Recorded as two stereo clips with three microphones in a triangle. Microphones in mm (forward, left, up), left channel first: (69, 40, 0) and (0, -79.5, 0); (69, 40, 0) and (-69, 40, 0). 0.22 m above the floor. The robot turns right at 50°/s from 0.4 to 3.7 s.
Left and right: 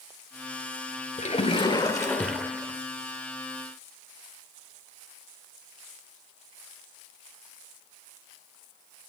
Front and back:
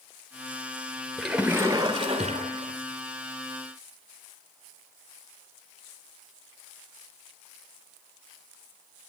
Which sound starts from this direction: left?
A splash, at 1.2 s.